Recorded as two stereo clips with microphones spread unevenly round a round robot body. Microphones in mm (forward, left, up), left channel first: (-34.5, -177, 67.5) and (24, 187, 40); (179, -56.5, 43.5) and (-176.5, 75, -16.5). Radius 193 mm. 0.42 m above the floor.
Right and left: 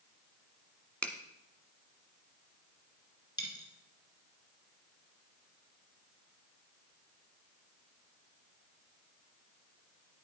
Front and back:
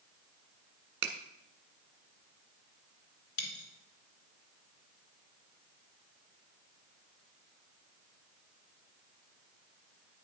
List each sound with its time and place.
1.0 s a finger snap: 170° left, 1.3 m
3.4 s a dropped coin: 20° right, 2 m